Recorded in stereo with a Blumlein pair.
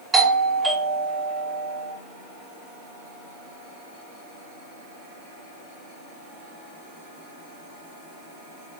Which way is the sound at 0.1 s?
15° right.